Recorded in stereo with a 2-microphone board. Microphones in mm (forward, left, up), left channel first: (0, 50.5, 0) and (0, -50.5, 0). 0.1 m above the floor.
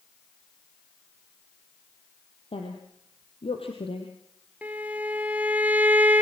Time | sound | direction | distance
2.5 | a woman speaking | 65° left (ahead or behind) | 3 m
4.6 | a violin | 15° right (ahead or behind) | 1.5 m